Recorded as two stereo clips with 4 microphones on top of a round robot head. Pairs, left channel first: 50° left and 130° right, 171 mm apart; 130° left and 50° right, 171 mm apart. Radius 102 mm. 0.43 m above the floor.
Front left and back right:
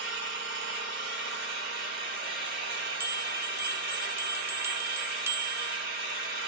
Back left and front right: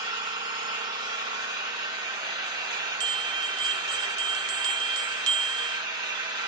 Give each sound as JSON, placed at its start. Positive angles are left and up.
{"t": 0.0, "sound": "an engine running", "azimuth_deg": -115, "distance_m": 1.7}
{"t": 3.0, "sound": "a bell", "azimuth_deg": -50, "distance_m": 0.8}